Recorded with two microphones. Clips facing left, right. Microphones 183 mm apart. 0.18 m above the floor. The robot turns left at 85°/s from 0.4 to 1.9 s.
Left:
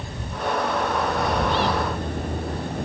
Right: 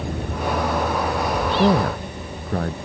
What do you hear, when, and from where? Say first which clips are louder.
0.0 s a vehicle: right 4 dB; 75° right (ahead or behind); by 2.9 s 55° left (ahead or behind)
1.6 s a man speaking: right 6 dB; 45° right (ahead or behind); by 2.8 s 70° right (ahead or behind)